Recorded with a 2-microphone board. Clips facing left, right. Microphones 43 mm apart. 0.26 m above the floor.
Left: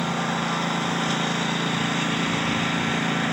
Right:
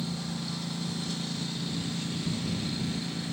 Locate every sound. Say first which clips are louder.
0.0 s a lawn mower: left 11 dB; 55° left (ahead or behind)